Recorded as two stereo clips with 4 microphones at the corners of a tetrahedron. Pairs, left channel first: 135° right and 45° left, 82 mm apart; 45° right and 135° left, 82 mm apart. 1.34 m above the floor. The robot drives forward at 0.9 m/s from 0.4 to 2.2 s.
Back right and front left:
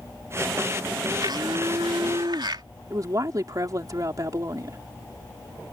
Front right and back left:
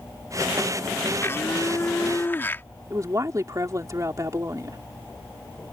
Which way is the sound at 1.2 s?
15° left.